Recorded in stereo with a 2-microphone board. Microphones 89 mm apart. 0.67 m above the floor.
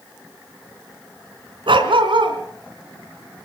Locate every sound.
1.7 s a dog barking: 75° right (ahead or behind), 2.5 m